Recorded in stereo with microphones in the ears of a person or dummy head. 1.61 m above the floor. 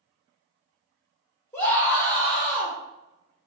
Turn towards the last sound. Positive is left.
turn(degrees=10)  # may be behind; listen again after turning